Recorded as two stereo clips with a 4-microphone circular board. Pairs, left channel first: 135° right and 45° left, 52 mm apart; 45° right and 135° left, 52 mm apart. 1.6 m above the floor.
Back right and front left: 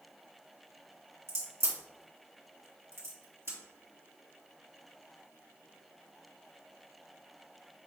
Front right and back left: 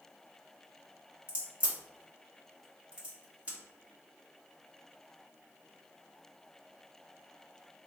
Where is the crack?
70° left, 2 m.